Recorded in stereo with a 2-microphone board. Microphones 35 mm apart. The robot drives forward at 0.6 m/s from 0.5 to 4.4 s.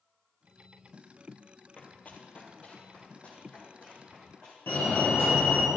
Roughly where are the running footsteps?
Left.